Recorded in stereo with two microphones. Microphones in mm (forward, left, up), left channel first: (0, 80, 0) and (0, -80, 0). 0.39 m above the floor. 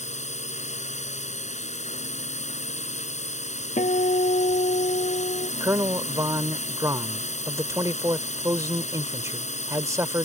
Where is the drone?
45° left (ahead or behind).